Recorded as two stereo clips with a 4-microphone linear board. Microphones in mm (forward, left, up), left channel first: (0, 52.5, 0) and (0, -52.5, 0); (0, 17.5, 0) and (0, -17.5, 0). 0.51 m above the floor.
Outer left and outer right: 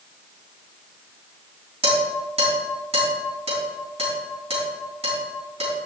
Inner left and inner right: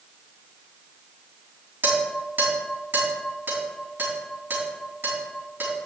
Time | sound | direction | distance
1.8 | dishes clattering | 80° right | 3 m